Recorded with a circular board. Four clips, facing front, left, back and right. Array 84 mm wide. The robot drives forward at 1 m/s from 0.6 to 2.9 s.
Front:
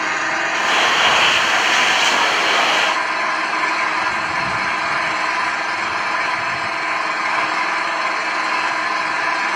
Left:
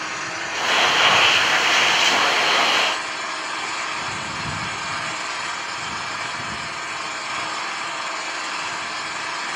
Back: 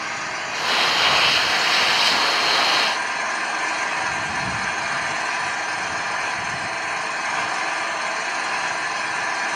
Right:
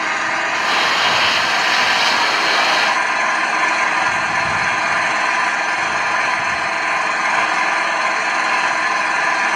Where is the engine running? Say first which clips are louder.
Right 9 dB, front 8 dB; 60° right, 6 m; by 9.6 s 80° right, 5 m.